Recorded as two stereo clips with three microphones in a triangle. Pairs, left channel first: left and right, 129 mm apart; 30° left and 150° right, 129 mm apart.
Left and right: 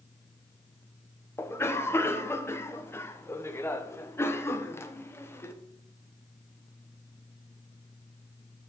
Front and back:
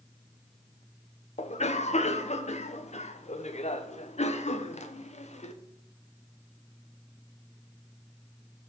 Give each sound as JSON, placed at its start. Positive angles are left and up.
{"t": 1.4, "sound": "a cough", "azimuth_deg": 25, "distance_m": 0.9}